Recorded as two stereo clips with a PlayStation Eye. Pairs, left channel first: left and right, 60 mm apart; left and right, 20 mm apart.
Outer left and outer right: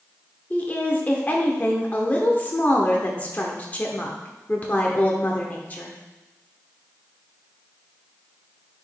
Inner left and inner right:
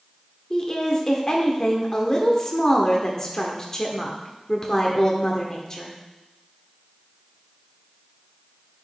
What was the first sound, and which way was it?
A woman speaking, 30° left (ahead or behind).